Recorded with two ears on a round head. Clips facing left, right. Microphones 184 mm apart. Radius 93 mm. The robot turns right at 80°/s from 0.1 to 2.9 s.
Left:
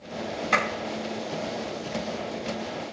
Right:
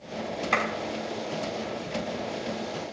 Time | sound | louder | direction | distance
0.5 | a clap | left 1 dB | 5° left (ahead or behind) | 5.5 m